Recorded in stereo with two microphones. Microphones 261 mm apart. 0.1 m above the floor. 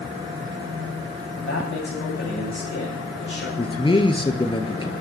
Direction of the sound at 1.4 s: 50° left (ahead or behind).